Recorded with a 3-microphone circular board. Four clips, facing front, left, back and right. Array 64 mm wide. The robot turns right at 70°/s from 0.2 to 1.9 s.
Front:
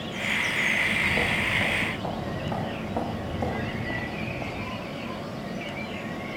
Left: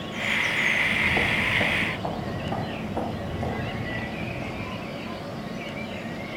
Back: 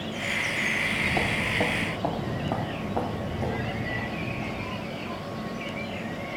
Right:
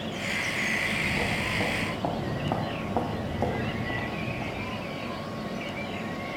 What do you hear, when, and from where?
0.7 s footsteps: 105° left, 3 m; by 4.9 s 55° right, 3.5 m